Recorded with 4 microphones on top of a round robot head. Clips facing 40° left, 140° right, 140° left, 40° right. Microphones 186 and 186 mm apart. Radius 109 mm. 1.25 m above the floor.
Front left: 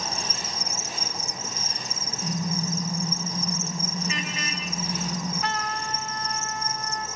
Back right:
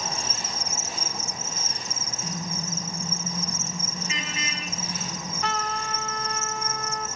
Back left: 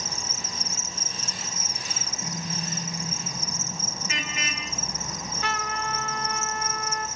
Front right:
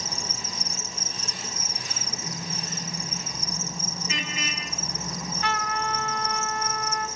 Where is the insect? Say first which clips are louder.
Even, front right 1 dB; straight ahead, 1.0 m.